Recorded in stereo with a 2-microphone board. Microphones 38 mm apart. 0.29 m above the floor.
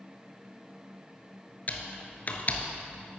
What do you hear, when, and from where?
1.7 s typing on a keyboard: 45° left (ahead or behind), 1.0 m